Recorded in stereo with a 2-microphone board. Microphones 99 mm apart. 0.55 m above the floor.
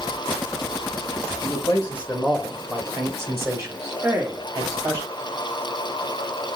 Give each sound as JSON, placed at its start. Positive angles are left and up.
{"t": 1.4, "sound": "a man speaking", "side_deg": 40, "distance_m": 0.9}
{"t": 4.0, "sound": "a man speaking", "side_deg": -20, "distance_m": 1.2}